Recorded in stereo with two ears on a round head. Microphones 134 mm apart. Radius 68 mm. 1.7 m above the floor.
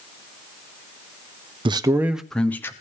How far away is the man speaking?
About 0.8 m.